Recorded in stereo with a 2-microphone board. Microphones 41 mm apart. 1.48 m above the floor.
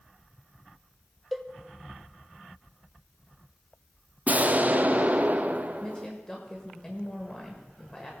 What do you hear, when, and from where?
1.3 s a cowbell: centre (ahead or behind), 0.5 m
4.3 s an explosion: 40° right (ahead or behind), 0.6 m
5.8 s a woman speaking: 10° left (ahead or behind), 1.5 m